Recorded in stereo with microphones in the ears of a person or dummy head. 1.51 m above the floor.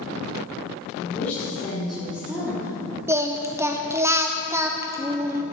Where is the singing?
10° right (ahead or behind), 0.7 m.